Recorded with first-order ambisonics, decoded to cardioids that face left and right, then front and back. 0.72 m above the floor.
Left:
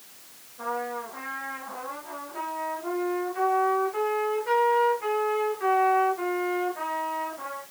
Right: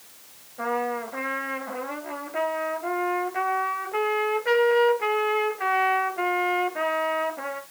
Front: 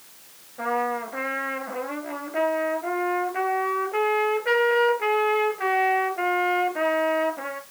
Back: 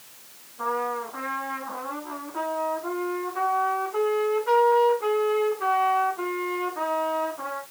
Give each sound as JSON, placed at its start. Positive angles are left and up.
{"t": 0.6, "sound": "a trumpet", "azimuth_deg": -35, "distance_m": 3.0}